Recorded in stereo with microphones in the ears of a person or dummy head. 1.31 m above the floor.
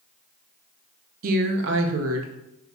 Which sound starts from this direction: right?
A woman speaking, at 1.2 s.